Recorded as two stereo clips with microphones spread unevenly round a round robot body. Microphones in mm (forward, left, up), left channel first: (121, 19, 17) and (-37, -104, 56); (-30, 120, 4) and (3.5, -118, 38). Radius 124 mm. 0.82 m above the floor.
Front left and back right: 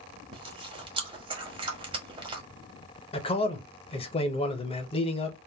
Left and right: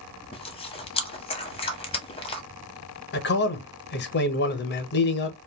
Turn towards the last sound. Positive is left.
turn(degrees=85)